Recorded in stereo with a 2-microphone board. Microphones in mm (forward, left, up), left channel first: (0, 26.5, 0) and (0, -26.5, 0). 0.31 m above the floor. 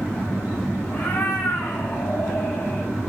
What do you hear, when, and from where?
0.9 s a cat meowing: 40° left (ahead or behind), 3 m; by 2.9 s 55° left (ahead or behind), 3.5 m